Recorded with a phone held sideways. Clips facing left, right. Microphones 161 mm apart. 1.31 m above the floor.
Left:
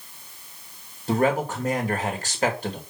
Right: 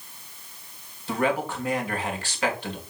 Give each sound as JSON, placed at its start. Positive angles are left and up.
{"t": 1.1, "sound": "a man speaking", "side_deg": 40, "distance_m": 1.9}